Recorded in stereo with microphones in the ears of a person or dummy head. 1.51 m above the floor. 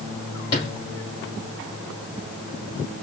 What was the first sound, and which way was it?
A sliding door, 25° left (ahead or behind).